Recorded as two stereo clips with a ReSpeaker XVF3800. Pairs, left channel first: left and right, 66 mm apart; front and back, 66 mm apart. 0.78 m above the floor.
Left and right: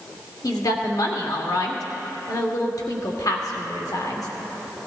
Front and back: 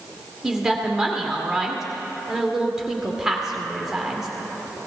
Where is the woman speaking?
100° left, 1.8 m.